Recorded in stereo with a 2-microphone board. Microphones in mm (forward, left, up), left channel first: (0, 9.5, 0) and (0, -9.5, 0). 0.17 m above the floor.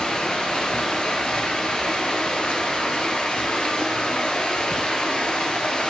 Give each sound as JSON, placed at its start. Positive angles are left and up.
{"t": 0.0, "sound": "running water", "side_deg": 50, "distance_m": 1.5}